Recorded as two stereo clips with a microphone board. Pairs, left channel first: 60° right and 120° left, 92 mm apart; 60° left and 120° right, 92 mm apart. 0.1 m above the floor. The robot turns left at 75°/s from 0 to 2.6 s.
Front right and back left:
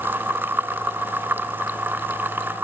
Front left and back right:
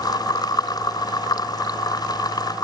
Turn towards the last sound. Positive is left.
No sound to turn to.